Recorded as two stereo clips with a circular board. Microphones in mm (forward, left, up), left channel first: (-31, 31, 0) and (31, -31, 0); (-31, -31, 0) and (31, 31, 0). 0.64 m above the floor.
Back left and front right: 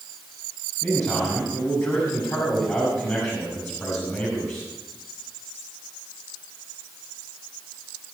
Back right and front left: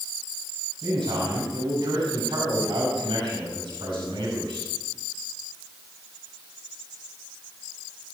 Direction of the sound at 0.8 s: 75° left.